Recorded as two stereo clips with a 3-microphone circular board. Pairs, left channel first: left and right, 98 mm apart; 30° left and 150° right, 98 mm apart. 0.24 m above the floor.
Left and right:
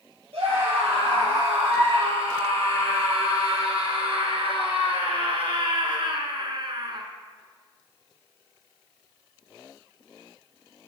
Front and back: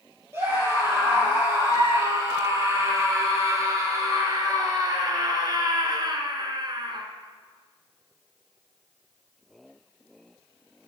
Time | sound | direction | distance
0.3 | a scream | 85° right | 5.5 m